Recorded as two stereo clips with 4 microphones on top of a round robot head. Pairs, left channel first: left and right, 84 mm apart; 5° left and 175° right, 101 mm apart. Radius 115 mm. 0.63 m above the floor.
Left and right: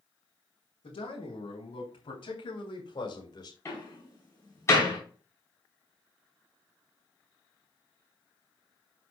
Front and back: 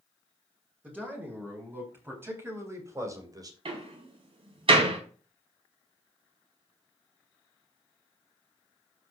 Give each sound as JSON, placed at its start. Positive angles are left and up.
{"t": 0.8, "sound": "a man speaking", "azimuth_deg": 110, "distance_m": 5.0}
{"t": 3.6, "sound": "a door slam", "azimuth_deg": 155, "distance_m": 4.5}